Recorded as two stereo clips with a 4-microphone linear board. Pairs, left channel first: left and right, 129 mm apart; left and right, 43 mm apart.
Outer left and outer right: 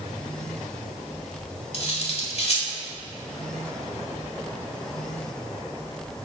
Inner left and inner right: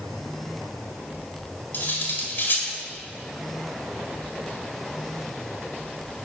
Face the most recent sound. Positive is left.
turn(degrees=50)  # may be behind; listen again after turning